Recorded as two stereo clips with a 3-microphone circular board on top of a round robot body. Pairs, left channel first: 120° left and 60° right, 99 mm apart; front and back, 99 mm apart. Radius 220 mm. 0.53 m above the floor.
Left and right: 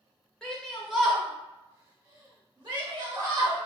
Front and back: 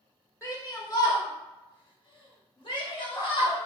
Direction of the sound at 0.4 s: 40° left.